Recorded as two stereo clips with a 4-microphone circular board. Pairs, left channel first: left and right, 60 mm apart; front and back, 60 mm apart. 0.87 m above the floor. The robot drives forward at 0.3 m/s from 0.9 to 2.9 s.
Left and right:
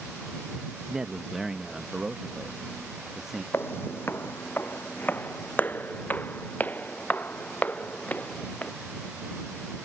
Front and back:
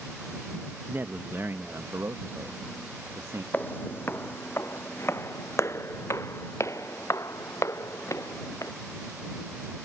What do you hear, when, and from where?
0.9 s a man speaking: 165° right; by 3.4 s 175° right
3.5 s footsteps: 50° left; by 8.7 s 25° left